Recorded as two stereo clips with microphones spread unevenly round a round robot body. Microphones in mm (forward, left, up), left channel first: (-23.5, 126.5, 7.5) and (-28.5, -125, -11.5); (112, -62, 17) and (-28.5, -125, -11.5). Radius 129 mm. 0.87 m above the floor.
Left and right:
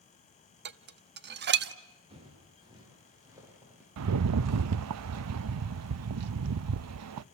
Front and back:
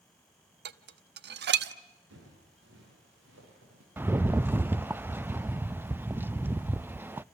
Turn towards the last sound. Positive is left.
turn(degrees=-85)